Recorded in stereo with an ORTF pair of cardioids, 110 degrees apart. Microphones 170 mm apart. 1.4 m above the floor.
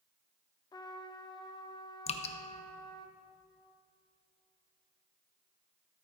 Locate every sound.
0.7 s a trumpet: 25° left, 0.8 m
2.1 s dripping: 35° left, 0.7 m